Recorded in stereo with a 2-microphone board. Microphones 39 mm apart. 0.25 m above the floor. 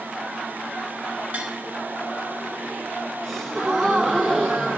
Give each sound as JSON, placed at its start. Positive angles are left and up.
{"t": 1.3, "sound": "tapping", "side_deg": -35, "distance_m": 2.5}
{"t": 3.2, "sound": "a gasp", "side_deg": 5, "distance_m": 5.0}